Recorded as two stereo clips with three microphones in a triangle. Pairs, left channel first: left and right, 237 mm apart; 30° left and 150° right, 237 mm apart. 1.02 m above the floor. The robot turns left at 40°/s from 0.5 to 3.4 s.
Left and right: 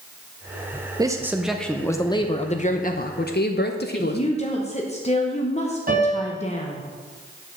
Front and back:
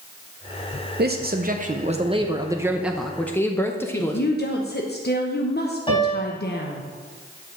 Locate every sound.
1.0 s a man speaking: 160° right, 0.6 m; by 4.4 s 105° left, 0.6 m
3.9 s a woman speaking: 45° left, 0.8 m
5.9 s a piano: 40° right, 3.5 m